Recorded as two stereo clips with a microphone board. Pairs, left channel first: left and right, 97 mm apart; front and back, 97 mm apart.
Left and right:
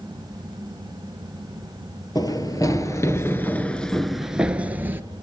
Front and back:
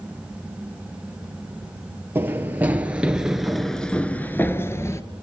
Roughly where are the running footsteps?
Behind left.